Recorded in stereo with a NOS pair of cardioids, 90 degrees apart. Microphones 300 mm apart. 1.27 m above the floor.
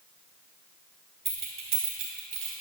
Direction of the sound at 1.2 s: 40° right.